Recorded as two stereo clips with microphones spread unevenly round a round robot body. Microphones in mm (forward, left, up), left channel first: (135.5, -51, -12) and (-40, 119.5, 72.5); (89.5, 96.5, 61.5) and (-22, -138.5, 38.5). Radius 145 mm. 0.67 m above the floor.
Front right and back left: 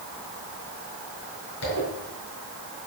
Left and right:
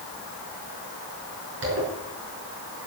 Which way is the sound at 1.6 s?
80° right.